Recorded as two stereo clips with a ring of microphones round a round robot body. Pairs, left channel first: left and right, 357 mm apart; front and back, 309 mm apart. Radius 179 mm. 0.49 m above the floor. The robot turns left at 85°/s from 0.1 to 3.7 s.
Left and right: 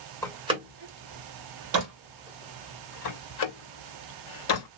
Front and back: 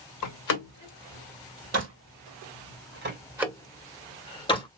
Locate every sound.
0.2 s a door slam: 10° left, 2 m; by 4.7 s 75° left, 2 m